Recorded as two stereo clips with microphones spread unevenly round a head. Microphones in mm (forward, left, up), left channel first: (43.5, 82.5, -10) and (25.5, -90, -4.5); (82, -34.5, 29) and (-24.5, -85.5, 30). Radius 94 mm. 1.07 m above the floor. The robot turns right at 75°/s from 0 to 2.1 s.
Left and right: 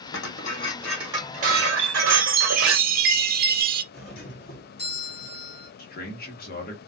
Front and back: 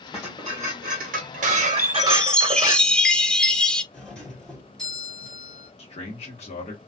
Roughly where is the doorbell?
Left.